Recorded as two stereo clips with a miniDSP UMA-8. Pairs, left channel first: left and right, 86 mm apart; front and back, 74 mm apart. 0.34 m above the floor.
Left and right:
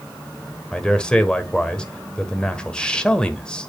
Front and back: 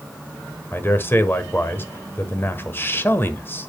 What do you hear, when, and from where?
0.7 s a man speaking: 20° left, 1.1 m